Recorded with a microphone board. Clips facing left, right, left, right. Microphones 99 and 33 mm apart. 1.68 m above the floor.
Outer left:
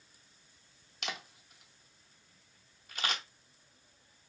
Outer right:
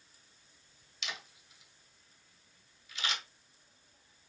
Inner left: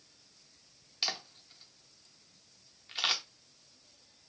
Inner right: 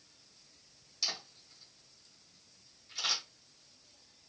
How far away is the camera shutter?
About 0.6 m.